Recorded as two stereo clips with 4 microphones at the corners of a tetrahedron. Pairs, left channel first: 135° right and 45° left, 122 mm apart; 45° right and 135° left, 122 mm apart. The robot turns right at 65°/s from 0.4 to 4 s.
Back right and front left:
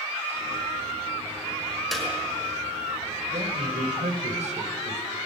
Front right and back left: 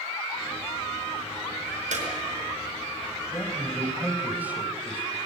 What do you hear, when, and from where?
1.9 s a clap: 140° left, 5.5 m; by 2.1 s 150° left, 5.5 m
3.3 s a man speaking: 15° left, 3 m; by 5.2 s 60° left, 3 m